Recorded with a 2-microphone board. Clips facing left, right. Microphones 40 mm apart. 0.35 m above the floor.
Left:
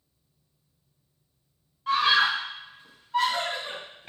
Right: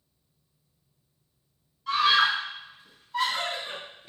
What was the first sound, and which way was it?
A scream, 35° left (ahead or behind).